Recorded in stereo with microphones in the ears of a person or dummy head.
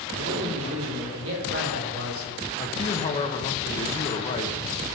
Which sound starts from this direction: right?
A man speaking, at 0.1 s.